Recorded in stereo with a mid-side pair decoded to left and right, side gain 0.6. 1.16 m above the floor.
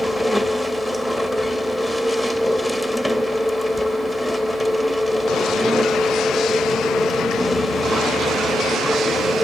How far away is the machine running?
About 1.0 m.